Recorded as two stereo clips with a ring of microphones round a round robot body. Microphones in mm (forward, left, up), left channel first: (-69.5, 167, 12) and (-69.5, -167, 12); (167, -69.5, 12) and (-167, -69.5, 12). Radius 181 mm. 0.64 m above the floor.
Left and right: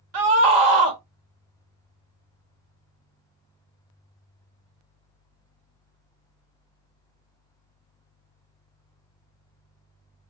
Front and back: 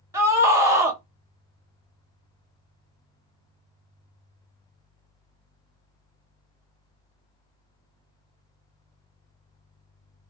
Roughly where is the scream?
Right.